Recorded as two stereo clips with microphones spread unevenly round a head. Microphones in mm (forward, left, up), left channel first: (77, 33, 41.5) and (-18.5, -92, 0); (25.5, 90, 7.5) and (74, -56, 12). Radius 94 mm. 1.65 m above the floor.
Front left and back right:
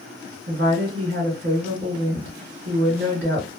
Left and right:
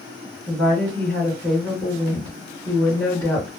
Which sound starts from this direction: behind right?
A woman speaking, at 0.5 s.